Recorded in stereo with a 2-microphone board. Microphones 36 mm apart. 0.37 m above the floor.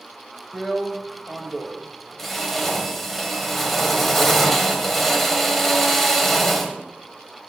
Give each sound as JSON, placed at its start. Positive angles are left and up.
{"t": 0.5, "sound": "a drill", "side_deg": 5, "distance_m": 1.6}